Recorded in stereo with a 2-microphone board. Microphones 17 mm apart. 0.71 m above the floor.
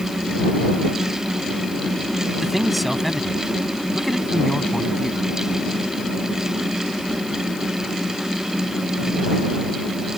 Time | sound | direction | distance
2.4 | a man speaking | centre (ahead or behind) | ?